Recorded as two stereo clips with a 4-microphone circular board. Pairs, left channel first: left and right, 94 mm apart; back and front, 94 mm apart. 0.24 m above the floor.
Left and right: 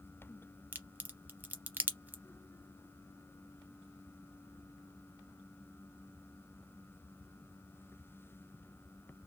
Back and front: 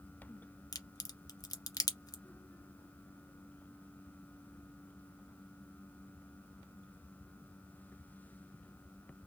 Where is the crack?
155° right, 0.6 m.